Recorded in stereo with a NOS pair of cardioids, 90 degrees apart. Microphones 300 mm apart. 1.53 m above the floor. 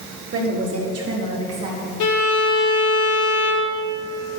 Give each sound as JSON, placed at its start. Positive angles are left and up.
{"t": 0.3, "sound": "a woman speaking", "azimuth_deg": -45, "distance_m": 3.5}
{"t": 2.0, "sound": "a violin", "azimuth_deg": 70, "distance_m": 1.7}